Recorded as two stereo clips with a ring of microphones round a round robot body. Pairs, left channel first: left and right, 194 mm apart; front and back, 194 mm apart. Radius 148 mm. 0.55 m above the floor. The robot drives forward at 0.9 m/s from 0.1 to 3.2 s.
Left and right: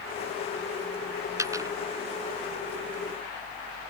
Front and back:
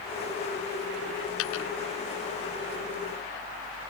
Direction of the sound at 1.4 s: 15° right.